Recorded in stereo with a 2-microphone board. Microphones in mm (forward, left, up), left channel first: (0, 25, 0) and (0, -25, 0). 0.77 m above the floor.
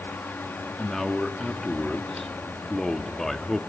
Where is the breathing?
I don't hear breathing.